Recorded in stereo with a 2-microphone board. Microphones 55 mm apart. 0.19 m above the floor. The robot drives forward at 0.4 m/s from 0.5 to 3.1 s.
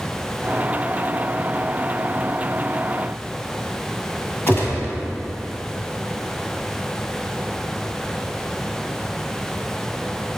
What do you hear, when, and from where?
4.5 s a gunshot: 35° left (ahead or behind), 1.4 m